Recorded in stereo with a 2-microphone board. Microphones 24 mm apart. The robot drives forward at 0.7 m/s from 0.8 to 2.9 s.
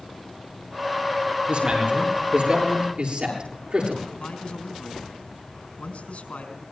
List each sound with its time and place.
1.5 s a man speaking: 55° right (ahead or behind), 8.5 m; by 4.0 s 50° right (ahead or behind), 9 m
4.1 s a man speaking: 70° left (ahead or behind), 5 m